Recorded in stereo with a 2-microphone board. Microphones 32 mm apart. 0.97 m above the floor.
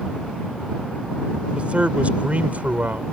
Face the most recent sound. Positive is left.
turn(degrees=-55)  # may be behind; listen again after turning